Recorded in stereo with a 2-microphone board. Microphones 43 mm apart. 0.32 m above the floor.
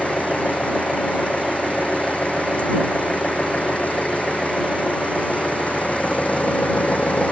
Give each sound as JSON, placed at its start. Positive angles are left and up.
{"t": 0.0, "sound": "an engine running", "side_deg": 30}